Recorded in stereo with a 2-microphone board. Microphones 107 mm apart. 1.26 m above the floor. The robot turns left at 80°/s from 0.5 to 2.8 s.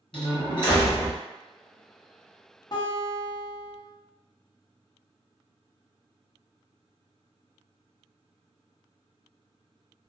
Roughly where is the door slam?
Ahead left.